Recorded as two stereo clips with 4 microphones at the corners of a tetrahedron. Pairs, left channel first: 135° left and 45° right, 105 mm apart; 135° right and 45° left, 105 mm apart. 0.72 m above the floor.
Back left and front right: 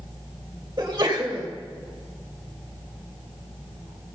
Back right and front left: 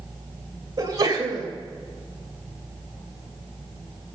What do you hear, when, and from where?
0.8 s a sneeze: 10° left, 2.5 m